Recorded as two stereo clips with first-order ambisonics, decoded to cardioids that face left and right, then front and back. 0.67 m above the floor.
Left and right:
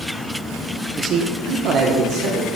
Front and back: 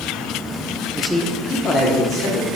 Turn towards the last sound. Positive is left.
turn(degrees=-50)